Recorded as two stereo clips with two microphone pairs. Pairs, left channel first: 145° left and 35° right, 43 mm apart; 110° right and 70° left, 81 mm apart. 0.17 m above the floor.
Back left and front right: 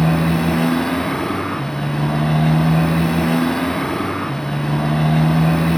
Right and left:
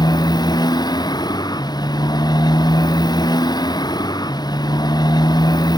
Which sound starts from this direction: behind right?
A motorcycle, at 0.0 s.